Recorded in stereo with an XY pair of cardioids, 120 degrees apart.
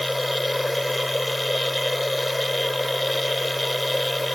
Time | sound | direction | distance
0.0 | a machine running | 5° left | ?